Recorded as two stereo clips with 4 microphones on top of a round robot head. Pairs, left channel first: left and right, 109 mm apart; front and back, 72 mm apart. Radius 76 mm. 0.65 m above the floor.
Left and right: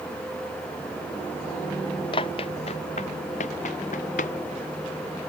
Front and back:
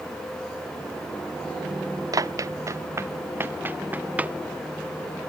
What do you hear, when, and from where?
2.1 s running footsteps: 145° left; by 4.4 s 110° left